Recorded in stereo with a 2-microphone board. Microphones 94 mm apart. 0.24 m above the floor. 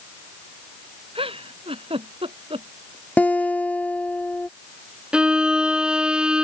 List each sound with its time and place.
1.1 s a giggle: 85° right
3.2 s a guitar: 15° left (ahead or behind)
5.1 s a violin: 10° right (ahead or behind)